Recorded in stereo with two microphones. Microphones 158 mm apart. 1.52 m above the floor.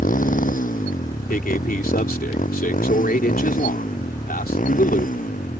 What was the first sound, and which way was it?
A motorcycle, 55° left (ahead or behind).